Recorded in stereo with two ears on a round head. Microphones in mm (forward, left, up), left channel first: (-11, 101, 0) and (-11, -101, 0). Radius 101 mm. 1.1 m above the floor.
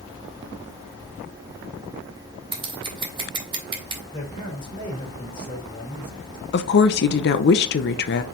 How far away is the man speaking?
About 3.5 m.